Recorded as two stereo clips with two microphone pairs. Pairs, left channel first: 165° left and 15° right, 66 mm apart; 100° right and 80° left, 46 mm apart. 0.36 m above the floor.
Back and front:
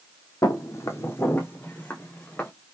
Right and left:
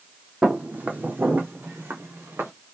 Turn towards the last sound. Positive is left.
turn(degrees=100)